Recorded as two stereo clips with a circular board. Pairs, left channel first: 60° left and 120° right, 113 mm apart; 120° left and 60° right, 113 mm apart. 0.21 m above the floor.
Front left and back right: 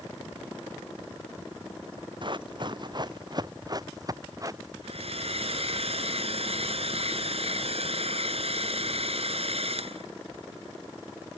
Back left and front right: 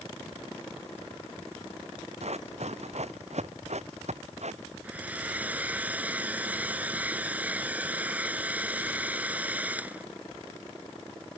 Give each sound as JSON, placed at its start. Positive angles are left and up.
{"t": 2.2, "sound": "running footsteps", "azimuth_deg": -75}
{"t": 4.8, "sound": "a hair dryer", "azimuth_deg": -135}